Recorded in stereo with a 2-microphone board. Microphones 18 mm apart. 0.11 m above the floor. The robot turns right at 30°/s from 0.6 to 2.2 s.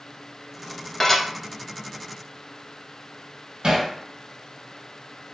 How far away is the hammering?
About 1.5 m.